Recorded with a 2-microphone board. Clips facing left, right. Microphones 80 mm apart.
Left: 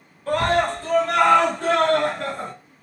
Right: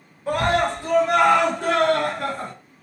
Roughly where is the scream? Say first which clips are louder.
Even; centre.